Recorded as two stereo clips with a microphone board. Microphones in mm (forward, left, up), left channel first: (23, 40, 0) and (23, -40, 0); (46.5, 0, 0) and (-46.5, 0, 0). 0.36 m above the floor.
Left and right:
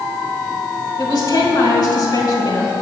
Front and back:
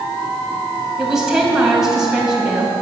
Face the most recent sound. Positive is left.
turn(degrees=95)